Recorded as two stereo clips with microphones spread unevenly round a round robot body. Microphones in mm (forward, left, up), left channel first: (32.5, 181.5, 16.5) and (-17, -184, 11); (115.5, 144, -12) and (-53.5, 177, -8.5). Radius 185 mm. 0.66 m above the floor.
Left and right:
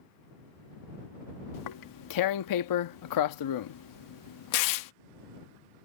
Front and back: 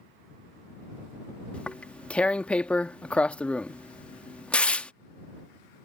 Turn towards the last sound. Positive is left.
turn(degrees=70)